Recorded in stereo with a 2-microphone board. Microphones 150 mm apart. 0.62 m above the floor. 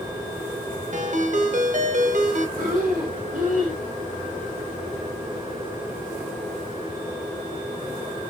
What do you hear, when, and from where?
0.9 s a ringtone: 55° right (ahead or behind), 0.7 m
2.6 s breathing: 65° right (ahead or behind), 2.5 m